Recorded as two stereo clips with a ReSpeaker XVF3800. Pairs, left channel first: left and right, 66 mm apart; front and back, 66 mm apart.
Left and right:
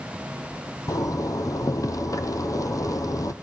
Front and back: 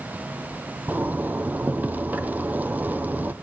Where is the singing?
I don't hear singing.